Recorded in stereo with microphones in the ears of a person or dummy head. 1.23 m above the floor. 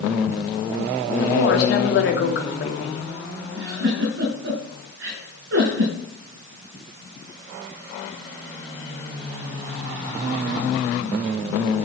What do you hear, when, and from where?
1.2 s a woman speaking: 65° left (ahead or behind), 2.5 m
3.5 s a giggle: 70° right (ahead or behind), 7.5 m